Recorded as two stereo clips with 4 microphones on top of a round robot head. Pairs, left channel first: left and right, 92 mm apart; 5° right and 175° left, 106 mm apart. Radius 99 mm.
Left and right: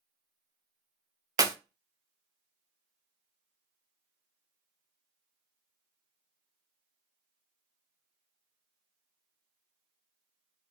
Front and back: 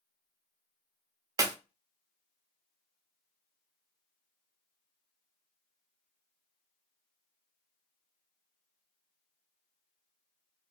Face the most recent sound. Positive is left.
turn(degrees=-135)